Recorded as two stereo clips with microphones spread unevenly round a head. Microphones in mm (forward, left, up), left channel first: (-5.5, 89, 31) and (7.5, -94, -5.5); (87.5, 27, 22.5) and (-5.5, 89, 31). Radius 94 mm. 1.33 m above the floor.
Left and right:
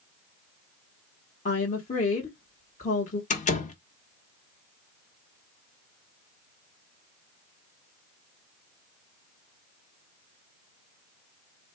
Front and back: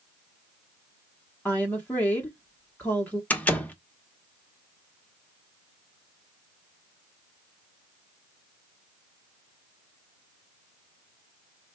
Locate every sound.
1.4 s a woman speaking: 45° left, 1.3 m
3.3 s a door slam: 45° left, 1.2 m